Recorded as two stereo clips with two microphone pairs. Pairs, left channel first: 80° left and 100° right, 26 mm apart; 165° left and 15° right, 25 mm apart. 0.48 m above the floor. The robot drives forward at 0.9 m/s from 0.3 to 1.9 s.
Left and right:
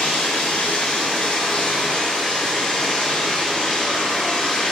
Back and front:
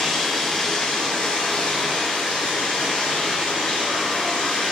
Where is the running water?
95° left, 1.9 m; by 4.7 s 130° left, 2.5 m.